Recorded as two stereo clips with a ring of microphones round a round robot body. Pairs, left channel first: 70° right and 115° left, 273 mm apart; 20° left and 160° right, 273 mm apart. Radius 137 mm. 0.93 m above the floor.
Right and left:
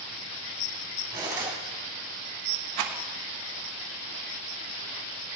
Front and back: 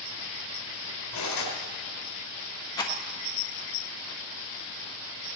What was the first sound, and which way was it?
Cutlery clinking, 35° left.